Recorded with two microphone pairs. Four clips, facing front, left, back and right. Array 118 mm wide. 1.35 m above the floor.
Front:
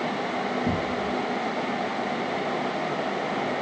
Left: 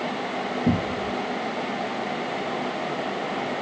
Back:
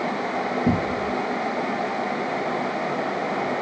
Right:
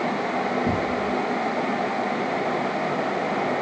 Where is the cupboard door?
140° left.